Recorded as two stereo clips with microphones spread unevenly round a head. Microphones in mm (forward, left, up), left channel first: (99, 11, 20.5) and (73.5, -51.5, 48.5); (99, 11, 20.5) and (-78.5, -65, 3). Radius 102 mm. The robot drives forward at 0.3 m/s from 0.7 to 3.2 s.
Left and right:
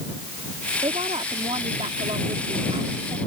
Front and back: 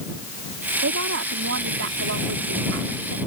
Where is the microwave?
No microwave in this recording.